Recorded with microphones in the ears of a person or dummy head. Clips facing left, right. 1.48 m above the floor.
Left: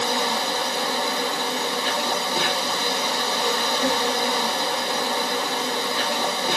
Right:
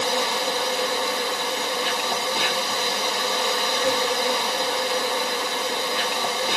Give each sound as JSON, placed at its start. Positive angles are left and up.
{"t": 0.0, "sound": "an insect", "side_deg": 25, "distance_m": 3.0}